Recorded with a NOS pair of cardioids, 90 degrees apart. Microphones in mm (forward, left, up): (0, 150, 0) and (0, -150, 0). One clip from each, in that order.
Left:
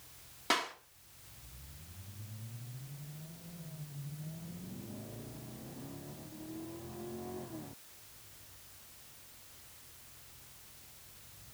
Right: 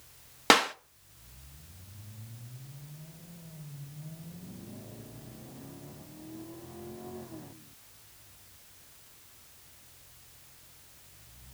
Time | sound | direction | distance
0.5 | a clap | 70° right | 1.1 m